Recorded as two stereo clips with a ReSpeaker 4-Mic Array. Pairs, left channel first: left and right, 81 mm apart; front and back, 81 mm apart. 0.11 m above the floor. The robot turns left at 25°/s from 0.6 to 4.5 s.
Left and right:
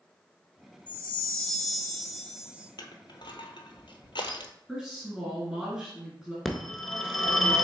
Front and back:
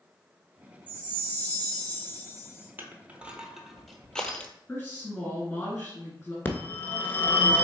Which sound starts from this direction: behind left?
Crushing, at 2.8 s.